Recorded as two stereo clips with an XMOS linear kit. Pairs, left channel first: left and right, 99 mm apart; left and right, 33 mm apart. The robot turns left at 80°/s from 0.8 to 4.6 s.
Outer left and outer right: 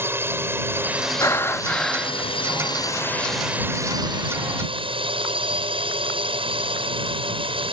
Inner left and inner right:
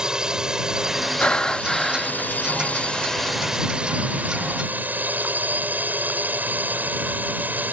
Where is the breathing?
65° left; by 2.2 s 20° right.